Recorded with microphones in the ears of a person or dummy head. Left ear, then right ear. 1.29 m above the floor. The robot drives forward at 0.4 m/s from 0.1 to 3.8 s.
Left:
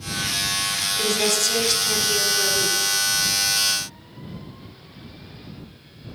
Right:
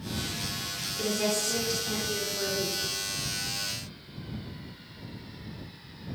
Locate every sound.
1.0 s a woman speaking: 35° left (ahead or behind), 3.5 m; by 2.9 s 45° left (ahead or behind), 3 m